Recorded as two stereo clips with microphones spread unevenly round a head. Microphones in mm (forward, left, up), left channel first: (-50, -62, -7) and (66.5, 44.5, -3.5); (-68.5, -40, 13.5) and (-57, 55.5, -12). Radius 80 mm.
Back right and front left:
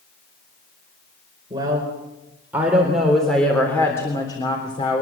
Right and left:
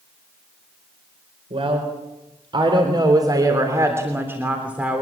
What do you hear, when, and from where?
1.5 s a woman speaking: 110° left, 4 m; by 5.0 s 165° left, 3.5 m